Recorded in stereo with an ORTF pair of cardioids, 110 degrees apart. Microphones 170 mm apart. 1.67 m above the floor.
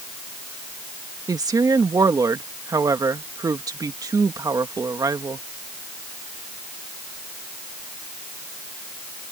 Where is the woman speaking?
20° right.